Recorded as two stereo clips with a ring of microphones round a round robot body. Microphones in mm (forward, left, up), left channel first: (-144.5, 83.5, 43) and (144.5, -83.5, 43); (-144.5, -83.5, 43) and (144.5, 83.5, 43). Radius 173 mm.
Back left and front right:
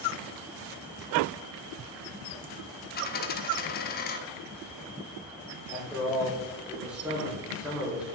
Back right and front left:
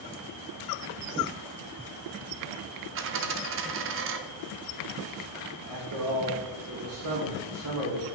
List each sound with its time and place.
3.0 s a dropped coin: 85° left, 0.8 m
5.7 s a man speaking: 55° left, 3 m